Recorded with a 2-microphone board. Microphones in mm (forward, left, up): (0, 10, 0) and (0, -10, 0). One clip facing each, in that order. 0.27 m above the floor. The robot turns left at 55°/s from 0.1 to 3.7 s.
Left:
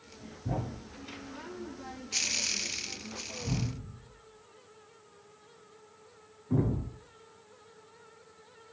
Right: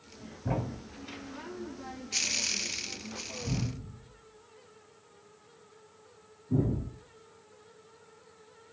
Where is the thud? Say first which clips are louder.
Right 2 dB; 60° right (ahead or behind), 0.9 m; by 7.0 s 65° left (ahead or behind), 0.9 m.